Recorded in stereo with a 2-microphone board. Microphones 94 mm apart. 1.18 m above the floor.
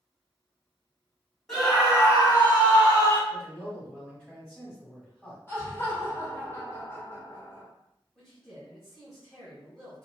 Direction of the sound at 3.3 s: 10° left (ahead or behind).